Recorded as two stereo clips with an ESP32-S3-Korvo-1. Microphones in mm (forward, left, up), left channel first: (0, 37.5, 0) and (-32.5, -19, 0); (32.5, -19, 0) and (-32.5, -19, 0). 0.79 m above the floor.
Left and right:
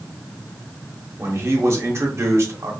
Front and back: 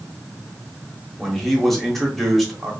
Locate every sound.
1.2 s a man speaking: 85° right, 0.9 m